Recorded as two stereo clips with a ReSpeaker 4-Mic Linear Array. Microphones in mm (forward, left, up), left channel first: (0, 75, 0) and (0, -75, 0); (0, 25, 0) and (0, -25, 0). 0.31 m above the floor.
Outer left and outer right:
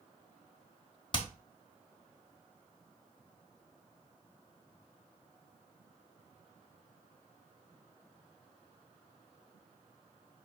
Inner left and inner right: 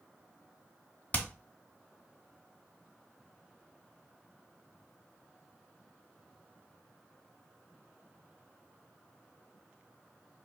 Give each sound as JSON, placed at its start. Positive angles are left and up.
{"t": 1.1, "sound": "hammering", "side_deg": 35, "distance_m": 1.0}